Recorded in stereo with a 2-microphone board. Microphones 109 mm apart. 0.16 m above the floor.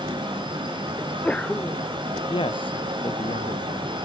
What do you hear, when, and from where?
1.0 s a sneeze: 10° left (ahead or behind)
2.3 s a man speaking: 50° left (ahead or behind)